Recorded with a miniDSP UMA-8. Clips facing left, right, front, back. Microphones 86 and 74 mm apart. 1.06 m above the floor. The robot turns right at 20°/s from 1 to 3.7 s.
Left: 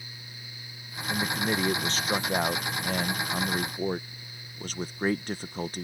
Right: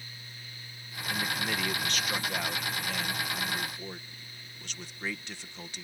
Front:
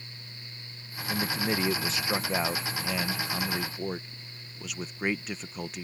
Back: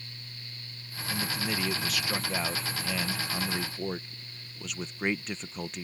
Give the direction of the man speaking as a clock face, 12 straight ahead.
11 o'clock.